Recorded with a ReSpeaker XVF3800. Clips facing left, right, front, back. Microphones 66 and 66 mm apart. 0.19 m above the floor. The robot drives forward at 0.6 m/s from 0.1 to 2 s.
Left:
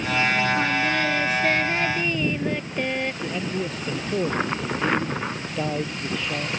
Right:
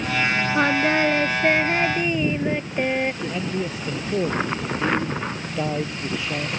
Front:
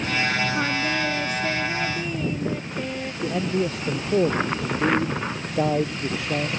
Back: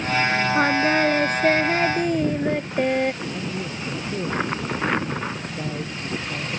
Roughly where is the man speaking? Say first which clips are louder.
Right 1 dB, front 5 dB; ahead.